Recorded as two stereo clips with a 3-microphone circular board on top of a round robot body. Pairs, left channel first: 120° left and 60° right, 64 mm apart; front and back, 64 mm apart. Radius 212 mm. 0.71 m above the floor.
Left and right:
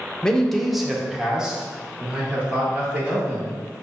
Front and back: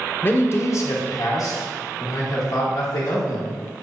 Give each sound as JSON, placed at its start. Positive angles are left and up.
{"t": 0.2, "sound": "a man speaking", "azimuth_deg": 45, "distance_m": 0.8}